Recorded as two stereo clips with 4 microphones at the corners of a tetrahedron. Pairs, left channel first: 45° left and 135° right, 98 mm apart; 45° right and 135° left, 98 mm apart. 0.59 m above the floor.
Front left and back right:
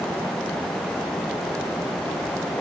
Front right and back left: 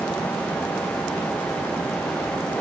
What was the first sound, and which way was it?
Only background noise.